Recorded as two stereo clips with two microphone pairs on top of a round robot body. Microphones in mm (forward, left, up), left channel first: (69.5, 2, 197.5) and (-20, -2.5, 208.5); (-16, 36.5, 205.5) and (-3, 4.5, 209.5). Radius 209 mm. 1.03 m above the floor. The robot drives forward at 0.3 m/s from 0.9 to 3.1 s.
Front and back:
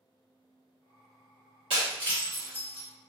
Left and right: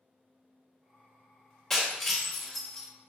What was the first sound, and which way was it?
Breaking glass, 165° right.